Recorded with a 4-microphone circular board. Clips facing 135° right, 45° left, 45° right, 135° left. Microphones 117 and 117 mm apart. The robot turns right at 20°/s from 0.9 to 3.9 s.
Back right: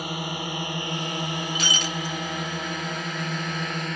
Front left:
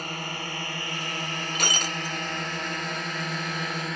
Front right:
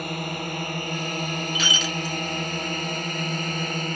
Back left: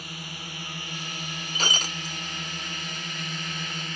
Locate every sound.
0.0 s a drone: 60° right; by 4.0 s 45° right
1.6 s breaking glass: 80° left; by 2.2 s 95° left